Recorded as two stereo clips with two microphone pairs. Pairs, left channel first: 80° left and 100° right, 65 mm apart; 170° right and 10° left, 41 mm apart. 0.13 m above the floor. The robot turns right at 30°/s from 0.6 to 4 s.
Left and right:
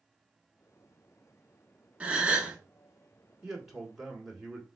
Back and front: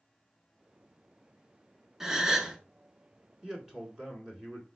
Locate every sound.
2.0 s a gasp: 55° right, 0.7 m; by 2.6 s 40° right, 0.7 m
3.4 s a man speaking: 30° right, 1.1 m; by 4.7 s 15° right, 1.1 m